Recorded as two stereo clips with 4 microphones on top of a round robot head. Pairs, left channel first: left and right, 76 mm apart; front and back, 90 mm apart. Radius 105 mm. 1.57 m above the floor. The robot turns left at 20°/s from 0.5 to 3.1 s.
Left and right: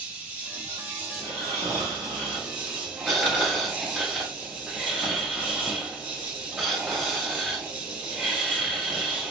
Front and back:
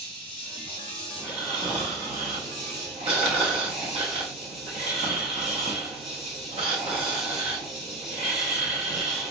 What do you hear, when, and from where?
0.0 s an insect: 35° right, 1.5 m; by 9.3 s 90° right, 1.5 m
1.2 s snoring: 125° right, 0.7 m; by 9.3 s 165° right, 0.7 m